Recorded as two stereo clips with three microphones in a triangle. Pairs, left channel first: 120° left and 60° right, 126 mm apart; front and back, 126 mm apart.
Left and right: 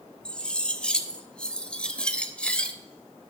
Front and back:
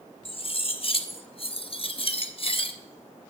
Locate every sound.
0.2 s cutlery clinking: 40° left, 0.9 m